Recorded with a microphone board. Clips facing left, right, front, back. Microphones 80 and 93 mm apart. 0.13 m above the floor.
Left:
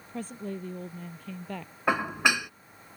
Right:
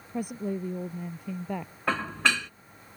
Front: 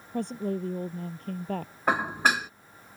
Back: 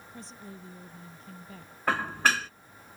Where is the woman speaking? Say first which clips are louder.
Right 5 dB, front 17 dB; 15° right.